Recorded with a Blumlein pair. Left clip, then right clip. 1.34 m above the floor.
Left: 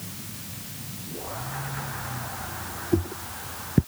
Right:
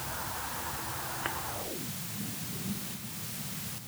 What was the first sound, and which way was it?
Only background noise.